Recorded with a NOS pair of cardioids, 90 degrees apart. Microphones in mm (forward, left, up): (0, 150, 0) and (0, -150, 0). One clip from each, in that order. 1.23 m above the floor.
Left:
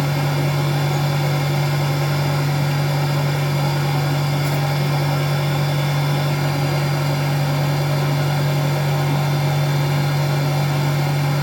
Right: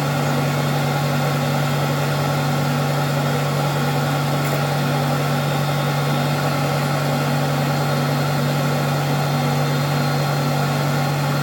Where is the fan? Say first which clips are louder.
Right 2 dB; 25° right, 1.6 m.